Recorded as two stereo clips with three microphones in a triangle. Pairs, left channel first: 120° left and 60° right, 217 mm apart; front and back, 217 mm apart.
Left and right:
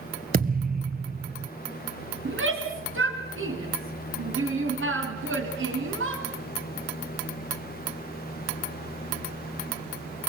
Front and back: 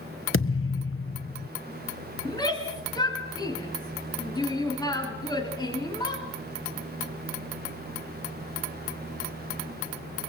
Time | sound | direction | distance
0.3 | a thud | 15° right | 1.5 m
2.2 | a shout | 70° right | 3 m